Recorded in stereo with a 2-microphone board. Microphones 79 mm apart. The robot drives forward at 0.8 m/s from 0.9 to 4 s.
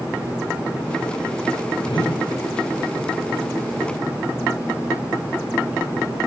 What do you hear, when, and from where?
1.9 s a whoosh: 90° left, 8 m; by 2.3 s 85° left, 8 m